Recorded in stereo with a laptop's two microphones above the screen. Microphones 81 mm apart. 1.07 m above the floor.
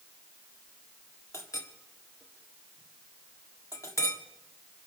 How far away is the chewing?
I don't hear chewing.